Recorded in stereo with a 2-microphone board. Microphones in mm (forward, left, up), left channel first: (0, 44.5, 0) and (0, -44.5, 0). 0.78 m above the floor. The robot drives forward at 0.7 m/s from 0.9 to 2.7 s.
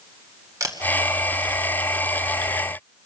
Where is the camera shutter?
35° right (ahead or behind), 1.9 m.